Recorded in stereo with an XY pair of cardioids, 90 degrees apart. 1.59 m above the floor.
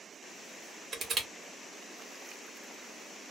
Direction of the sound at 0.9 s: 55° right.